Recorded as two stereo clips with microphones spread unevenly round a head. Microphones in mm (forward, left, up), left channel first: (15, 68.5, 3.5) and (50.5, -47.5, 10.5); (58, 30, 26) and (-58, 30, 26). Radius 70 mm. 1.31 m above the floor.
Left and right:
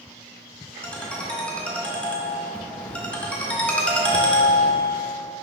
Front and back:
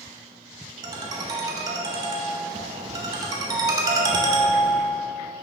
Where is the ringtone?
175° right, 0.6 m.